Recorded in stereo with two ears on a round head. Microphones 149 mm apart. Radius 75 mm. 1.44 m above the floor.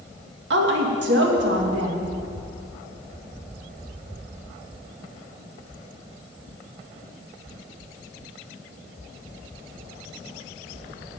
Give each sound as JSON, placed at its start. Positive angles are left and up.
{"t": 0.5, "sound": "a woman speaking", "side_deg": -75, "distance_m": 2.5}